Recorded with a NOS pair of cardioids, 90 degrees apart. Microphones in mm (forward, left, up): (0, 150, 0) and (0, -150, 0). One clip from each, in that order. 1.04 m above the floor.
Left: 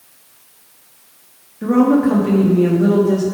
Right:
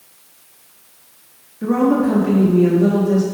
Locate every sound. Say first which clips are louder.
1.6 s a woman speaking: left 2 dB; 10° left, 1.3 m